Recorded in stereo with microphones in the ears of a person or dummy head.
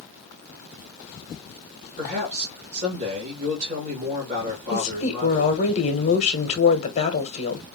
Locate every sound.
2.0 s a man speaking: 40° right (ahead or behind), 1.9 m
4.7 s a woman speaking: 35° left (ahead or behind), 1.2 m